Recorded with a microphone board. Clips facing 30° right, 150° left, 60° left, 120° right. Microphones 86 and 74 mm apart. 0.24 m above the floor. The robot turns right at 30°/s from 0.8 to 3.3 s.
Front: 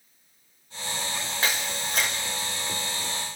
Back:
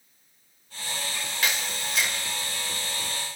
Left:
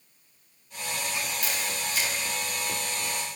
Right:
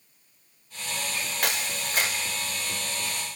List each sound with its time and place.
1.4 s a camera shutter: 90° right, 5 m; by 2.1 s 65° right, 5 m